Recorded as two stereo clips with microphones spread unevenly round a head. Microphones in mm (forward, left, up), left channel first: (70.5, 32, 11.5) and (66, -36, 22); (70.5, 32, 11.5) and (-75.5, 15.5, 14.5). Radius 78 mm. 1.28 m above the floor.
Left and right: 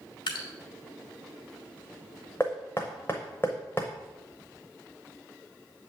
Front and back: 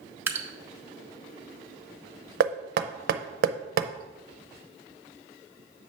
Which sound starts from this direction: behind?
Knocking, at 2.4 s.